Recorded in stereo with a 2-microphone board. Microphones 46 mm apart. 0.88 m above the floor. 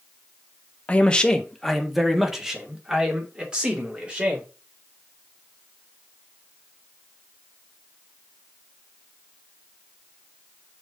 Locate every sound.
0.9 s a man speaking: 25° left (ahead or behind), 1.2 m; by 4.5 s 25° right (ahead or behind), 4 m